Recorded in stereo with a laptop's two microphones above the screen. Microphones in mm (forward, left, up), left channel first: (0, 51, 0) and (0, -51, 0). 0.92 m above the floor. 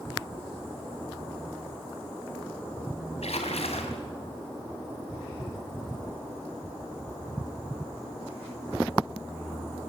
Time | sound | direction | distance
3.2 | a splash | 85° left | 3 m